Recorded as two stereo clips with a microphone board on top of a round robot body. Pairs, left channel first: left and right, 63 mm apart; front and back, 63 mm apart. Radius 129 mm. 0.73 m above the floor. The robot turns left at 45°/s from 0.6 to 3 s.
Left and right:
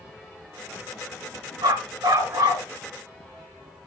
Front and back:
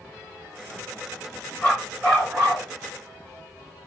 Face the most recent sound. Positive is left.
turn(degrees=-135)